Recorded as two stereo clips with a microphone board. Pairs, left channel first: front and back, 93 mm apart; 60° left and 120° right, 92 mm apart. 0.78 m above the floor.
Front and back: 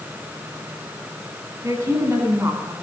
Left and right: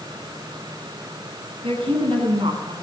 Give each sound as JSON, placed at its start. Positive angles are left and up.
{"t": 1.6, "sound": "a woman speaking", "azimuth_deg": -120, "distance_m": 9.5}